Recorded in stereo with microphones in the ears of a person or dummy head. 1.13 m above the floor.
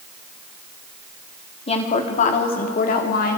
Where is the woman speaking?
35° left (ahead or behind), 2.5 m; by 3.4 s 55° left (ahead or behind), 3.5 m.